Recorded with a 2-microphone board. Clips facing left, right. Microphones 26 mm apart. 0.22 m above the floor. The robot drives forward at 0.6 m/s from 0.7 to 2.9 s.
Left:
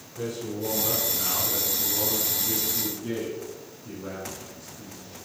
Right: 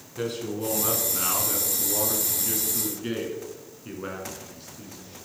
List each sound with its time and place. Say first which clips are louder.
0.2 s a man speaking: right 2 dB; 60° right (ahead or behind), 2 m; by 5.2 s 50° right (ahead or behind), 2 m